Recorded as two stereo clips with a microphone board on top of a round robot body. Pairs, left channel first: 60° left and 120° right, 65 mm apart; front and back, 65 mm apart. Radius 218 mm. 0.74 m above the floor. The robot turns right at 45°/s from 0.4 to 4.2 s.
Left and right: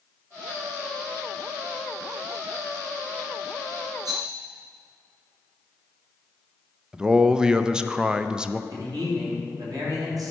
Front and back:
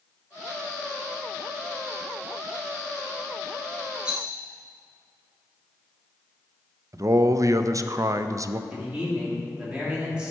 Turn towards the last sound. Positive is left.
turn(degrees=-105)